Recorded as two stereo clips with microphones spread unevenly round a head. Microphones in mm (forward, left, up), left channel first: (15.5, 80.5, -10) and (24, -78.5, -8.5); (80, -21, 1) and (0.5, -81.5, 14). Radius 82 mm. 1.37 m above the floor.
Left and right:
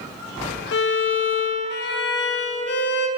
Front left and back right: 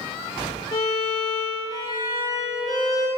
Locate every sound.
0.7 s a violin: 95° left, 0.6 m